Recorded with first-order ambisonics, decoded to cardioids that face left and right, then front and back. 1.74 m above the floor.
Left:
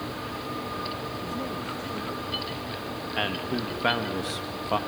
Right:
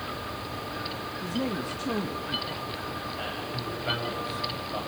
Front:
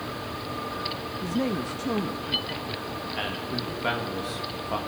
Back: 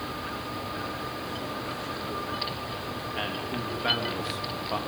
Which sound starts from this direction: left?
A man speaking, at 3.2 s.